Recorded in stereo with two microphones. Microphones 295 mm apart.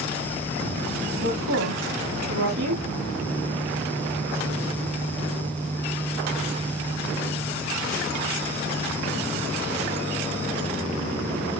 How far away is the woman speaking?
About 6 m.